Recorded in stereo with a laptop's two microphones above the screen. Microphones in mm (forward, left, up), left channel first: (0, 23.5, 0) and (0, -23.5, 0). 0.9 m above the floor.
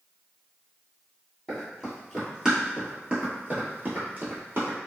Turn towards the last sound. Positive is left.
turn(degrees=-50)  # may be behind; listen again after turning